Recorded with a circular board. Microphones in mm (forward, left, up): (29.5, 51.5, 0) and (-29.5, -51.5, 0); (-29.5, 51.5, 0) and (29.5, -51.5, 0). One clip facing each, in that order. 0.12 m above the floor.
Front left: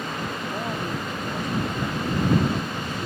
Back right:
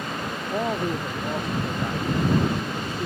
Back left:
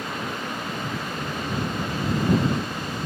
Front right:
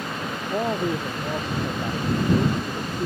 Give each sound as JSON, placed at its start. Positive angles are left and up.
{"t": 0.5, "sound": "a man speaking", "azimuth_deg": -60}